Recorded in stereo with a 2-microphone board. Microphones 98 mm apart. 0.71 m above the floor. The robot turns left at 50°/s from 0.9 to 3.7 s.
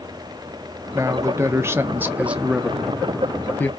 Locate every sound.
0.9 s a man speaking: 85° right, 0.5 m; by 3.7 s 135° left, 0.5 m